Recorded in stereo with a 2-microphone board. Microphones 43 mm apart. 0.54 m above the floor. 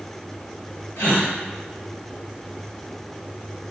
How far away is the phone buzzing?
No phone buzzing in this recording.